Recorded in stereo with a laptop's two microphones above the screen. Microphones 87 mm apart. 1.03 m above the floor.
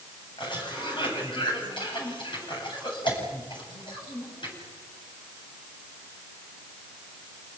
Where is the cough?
65° left (ahead or behind), 8.5 m.